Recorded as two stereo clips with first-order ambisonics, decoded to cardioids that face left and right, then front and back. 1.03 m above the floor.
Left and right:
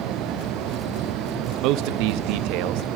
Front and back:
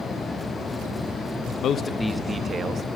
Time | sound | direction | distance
1.6 | a man speaking | 55° right | 0.5 m